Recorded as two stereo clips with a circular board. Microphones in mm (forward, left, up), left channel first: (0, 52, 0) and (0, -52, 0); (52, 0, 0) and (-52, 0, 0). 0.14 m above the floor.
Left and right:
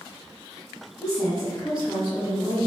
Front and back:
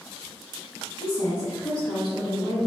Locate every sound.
1.0 s a woman speaking: 25° left, 1.3 m; by 2.7 s 90° right, 1.5 m